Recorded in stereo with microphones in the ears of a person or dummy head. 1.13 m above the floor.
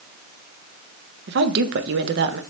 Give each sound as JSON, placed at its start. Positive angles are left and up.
{"t": 1.3, "sound": "a woman speaking", "side_deg": -60, "distance_m": 0.8}